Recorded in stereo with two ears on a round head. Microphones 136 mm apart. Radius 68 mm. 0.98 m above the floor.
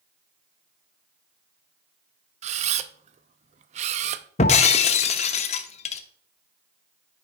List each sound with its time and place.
2.4 s a camera shutter: 45° right (ahead or behind), 0.5 m
4.4 s breaking glass: 45° left (ahead or behind), 0.7 m